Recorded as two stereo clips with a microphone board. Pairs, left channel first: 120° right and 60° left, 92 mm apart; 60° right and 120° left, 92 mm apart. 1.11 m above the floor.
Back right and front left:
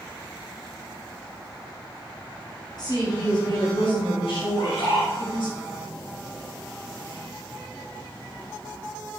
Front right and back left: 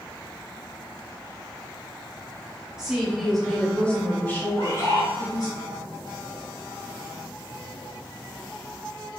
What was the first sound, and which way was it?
A woman speaking, 155° right.